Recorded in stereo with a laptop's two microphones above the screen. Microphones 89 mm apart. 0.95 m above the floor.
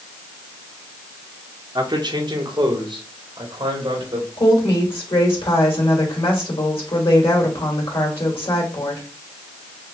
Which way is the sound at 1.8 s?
55° right (ahead or behind).